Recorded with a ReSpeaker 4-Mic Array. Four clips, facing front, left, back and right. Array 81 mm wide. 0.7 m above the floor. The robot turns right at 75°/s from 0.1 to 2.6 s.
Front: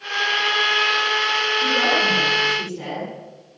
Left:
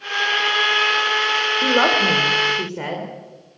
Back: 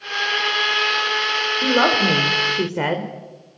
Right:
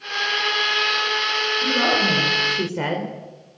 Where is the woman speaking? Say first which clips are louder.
Left 4 dB, back 5 dB; 115° left, 3 m; by 3.1 s 170° right, 3 m.